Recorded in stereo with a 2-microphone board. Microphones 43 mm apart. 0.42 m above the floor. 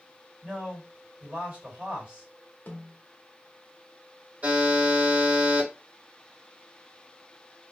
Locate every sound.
0.4 s a man speaking: 35° right (ahead or behind), 2 m
2.7 s a snare drum: 50° left (ahead or behind), 1.0 m
4.4 s a buzzer: 40° right (ahead or behind), 2 m